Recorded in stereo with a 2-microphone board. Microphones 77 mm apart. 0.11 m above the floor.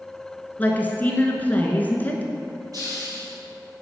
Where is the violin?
I don't hear a violin.